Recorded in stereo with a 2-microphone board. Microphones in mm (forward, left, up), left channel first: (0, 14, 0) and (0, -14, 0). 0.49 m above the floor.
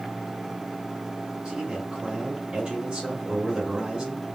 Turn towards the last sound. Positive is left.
turn(degrees=-30)  # may be behind; listen again after turning